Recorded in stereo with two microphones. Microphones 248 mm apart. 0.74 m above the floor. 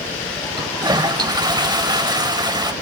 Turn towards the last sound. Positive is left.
turn(degrees=-15)  # may be behind; listen again after turning